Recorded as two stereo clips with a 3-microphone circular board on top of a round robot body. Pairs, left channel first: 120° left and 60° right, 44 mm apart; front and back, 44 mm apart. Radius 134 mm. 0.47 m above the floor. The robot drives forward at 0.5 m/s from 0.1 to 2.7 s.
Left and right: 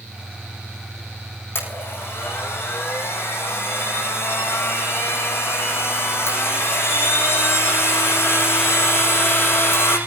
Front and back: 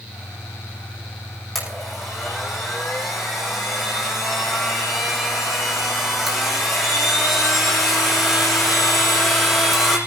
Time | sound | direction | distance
1.6 | a blender | 85° left | 8.5 m